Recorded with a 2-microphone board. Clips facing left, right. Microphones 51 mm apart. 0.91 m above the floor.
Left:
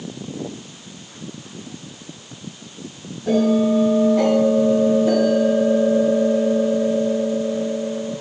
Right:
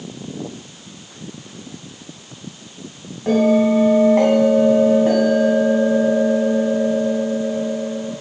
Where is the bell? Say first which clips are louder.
Right 2 dB; 50° right (ahead or behind), 5 m.